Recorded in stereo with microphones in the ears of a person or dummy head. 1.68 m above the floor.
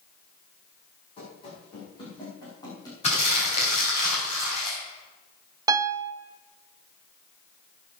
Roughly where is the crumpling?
Left.